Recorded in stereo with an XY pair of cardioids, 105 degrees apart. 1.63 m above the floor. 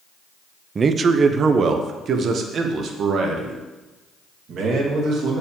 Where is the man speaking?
35° right, 0.7 m; by 5.4 s 65° right, 3 m.